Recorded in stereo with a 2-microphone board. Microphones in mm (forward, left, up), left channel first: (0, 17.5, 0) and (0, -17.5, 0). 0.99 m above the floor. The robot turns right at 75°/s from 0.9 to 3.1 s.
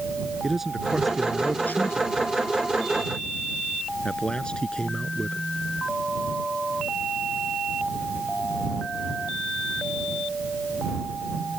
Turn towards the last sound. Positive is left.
turn(degrees=25)  # may be behind; listen again after turning